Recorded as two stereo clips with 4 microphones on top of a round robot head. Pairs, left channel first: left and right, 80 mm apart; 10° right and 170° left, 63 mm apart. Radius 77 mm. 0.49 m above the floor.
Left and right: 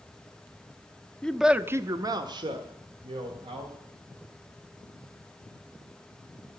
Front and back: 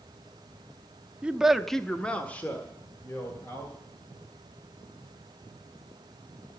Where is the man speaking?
140° left, 0.8 m; by 3.8 s 75° right, 3 m.